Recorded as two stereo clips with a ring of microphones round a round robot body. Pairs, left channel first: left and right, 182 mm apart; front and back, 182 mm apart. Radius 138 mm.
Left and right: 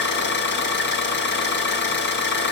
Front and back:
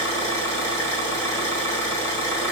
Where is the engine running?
75° left, 2.5 m.